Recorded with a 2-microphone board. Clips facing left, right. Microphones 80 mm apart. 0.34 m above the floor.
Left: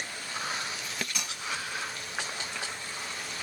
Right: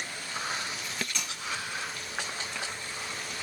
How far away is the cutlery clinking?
About 2.5 m.